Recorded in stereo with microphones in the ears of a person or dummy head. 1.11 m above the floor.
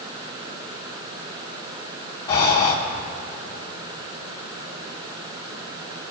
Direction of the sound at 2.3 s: 25° left (ahead or behind).